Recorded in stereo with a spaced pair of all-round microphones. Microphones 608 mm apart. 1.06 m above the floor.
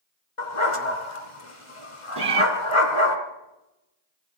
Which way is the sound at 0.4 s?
55° left (ahead or behind).